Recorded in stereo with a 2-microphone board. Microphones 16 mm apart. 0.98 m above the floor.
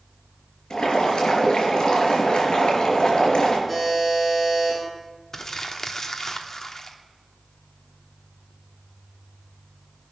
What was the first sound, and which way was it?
Boiling, 55° left (ahead or behind).